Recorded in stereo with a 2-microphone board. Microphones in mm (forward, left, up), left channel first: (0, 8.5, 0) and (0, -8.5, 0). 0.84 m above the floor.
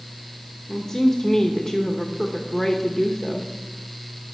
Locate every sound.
0.7 s a woman speaking: 30° left (ahead or behind), 1.0 m